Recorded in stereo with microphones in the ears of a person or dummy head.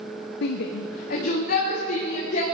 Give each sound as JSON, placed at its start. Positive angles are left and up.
{"t": 0.4, "sound": "a shout", "side_deg": 70, "distance_m": 0.6}